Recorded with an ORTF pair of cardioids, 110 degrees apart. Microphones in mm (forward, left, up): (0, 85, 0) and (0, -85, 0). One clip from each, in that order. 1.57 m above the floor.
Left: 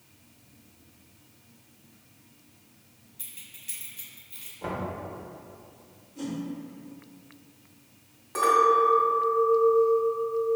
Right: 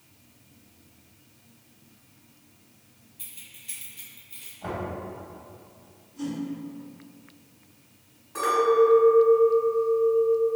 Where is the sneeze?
No sneeze in this recording.